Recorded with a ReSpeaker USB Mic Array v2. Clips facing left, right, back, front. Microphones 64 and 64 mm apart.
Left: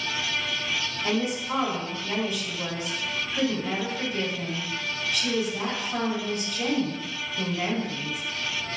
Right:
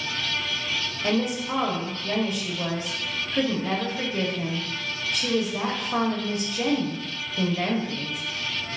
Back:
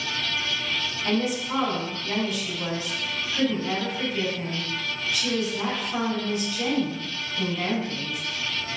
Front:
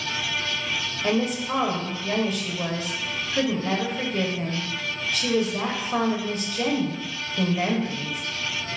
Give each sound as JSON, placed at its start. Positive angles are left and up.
{"t": 1.0, "sound": "a woman speaking", "azimuth_deg": -45, "distance_m": 1.1}